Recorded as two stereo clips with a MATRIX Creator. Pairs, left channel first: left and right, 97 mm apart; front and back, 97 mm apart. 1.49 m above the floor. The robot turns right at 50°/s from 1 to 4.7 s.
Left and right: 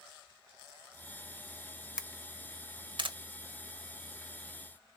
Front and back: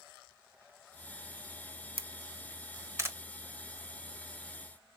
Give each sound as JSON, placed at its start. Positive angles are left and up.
{"t": 2.0, "sound": "a camera shutter", "azimuth_deg": -170, "distance_m": 0.6}